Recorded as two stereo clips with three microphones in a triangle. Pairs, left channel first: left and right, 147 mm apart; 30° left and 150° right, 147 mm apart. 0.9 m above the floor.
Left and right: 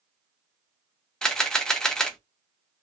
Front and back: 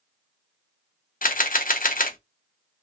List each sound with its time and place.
1.2 s a camera shutter: 5° left, 0.5 m